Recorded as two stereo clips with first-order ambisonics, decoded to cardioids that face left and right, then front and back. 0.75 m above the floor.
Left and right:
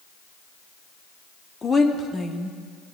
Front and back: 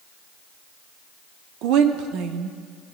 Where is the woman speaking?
160° left, 1.0 m.